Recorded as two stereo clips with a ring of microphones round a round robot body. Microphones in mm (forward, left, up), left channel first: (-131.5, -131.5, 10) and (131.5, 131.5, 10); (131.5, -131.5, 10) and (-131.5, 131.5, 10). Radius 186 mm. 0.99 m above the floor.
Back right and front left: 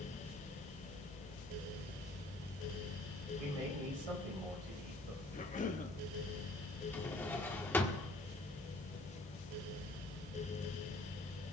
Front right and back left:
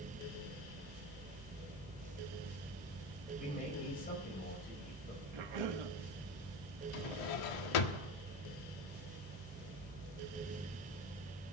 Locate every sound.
3.4 s a man speaking: 25° left, 5 m
5.3 s a cough: 155° left, 1.3 m
6.9 s a drawer: 50° right, 1.1 m